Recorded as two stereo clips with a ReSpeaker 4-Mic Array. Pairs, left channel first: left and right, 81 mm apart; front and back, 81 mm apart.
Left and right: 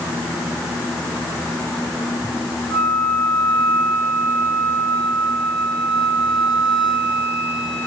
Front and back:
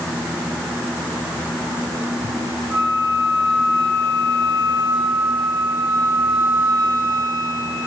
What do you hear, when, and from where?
2.7 s a flute: 165° right, 7 m